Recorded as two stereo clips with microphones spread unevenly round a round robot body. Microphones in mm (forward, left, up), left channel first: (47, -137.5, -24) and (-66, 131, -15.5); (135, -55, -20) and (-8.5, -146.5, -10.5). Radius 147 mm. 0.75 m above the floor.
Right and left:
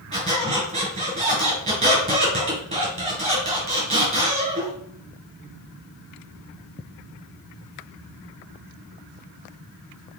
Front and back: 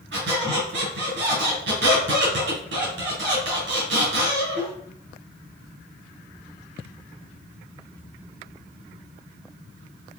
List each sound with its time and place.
0.1 s a squeak: straight behind, 3 m